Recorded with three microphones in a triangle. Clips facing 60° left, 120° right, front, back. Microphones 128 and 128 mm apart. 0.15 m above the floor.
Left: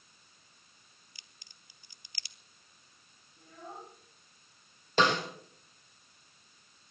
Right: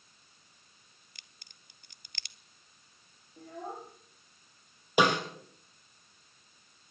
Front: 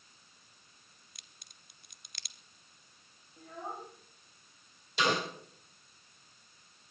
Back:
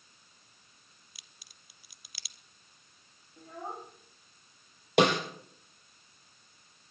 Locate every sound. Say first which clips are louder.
1.1 s a crack: even, even; 95° right, 0.7 m
3.4 s a child speaking: right 6 dB, back 1 dB; 100° right, 5.5 m
5.0 s a snare drum: right 2 dB, back 7 dB; 165° left, 4 m